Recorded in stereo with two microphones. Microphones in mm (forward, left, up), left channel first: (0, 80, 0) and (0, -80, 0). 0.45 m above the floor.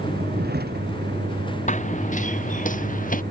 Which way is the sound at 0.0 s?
85° right.